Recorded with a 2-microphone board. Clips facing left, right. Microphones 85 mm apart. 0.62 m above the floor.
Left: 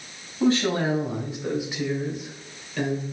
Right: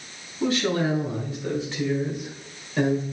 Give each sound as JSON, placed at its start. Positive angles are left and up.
{"t": 0.4, "sound": "a woman speaking", "side_deg": 35, "distance_m": 4.0}